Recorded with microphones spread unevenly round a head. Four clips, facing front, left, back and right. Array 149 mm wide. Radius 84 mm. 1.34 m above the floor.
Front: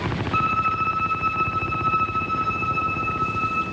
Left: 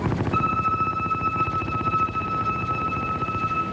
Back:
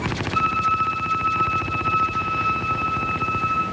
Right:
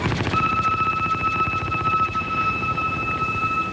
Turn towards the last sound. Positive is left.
turn(degrees=25)